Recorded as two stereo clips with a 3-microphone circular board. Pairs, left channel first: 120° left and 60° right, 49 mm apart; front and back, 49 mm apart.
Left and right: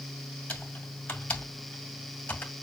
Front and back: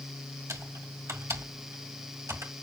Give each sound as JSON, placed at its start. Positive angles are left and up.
{"t": 0.5, "sound": "typing on a keyboard", "azimuth_deg": 180, "distance_m": 2.0}